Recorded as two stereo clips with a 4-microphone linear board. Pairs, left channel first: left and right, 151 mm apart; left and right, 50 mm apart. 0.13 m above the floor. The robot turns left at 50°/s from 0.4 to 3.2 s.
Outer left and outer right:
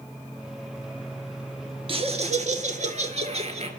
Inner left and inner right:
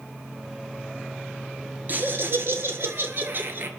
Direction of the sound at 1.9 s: 50° right.